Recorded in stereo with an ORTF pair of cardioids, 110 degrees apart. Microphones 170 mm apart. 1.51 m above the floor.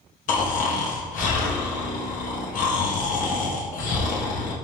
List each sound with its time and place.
0.3 s snoring: 60° left, 0.8 m